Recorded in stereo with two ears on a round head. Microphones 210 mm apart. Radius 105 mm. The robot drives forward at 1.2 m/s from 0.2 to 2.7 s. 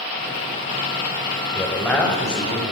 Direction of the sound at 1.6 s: 5° left (ahead or behind).